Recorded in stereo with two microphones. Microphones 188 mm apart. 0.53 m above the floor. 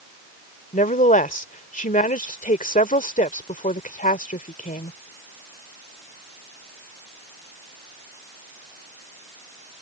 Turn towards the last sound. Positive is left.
turn(degrees=45)  # may be behind; listen again after turning